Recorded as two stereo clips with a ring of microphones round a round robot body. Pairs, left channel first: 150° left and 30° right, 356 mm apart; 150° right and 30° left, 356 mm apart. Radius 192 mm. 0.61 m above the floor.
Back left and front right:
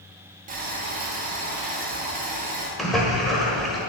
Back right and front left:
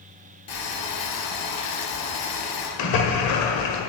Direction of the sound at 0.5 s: 100° right.